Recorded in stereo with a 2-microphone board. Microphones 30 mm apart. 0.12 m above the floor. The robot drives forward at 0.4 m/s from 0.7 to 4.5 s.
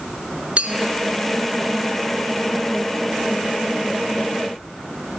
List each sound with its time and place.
0.6 s a clink: 45° right (ahead or behind), 1.0 m; by 0.9 s 50° right (ahead or behind), 1.0 m